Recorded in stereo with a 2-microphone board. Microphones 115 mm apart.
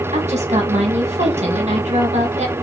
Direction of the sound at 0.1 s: 80° right.